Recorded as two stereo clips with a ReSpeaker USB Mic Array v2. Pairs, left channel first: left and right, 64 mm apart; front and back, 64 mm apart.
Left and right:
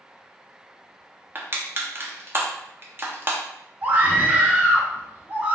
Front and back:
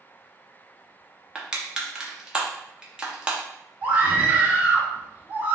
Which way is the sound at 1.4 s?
115° right.